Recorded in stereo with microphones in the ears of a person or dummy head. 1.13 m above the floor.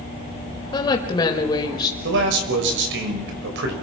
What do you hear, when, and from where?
0.7 s a woman speaking: 25° left (ahead or behind), 5 m
2.0 s a man speaking: 65° right (ahead or behind), 5.5 m